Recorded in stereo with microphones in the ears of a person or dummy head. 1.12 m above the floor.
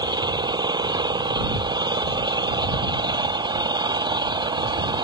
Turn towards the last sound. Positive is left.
turn(degrees=-20)  # may be behind; listen again after turning